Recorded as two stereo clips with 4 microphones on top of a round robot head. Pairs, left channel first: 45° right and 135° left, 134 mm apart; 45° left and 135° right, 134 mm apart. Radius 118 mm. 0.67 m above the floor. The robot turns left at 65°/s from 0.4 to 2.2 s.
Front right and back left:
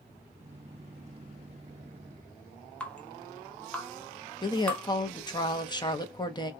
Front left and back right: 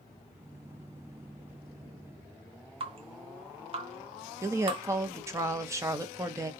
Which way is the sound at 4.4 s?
80° right.